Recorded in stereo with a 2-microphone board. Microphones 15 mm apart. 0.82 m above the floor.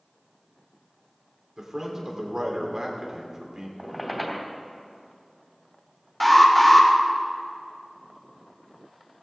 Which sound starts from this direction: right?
A man speaking, at 1.6 s.